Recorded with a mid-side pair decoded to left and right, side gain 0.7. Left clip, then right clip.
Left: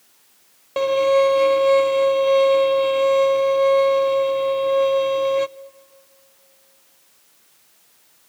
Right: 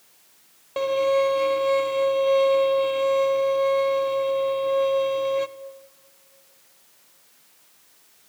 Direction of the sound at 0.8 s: 20° left.